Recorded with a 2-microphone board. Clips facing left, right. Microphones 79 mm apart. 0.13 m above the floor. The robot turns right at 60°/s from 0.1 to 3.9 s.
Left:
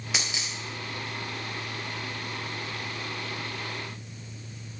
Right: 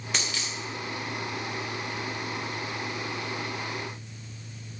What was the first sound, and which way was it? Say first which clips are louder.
A dropped coin: right 1 dB; 5° left (ahead or behind).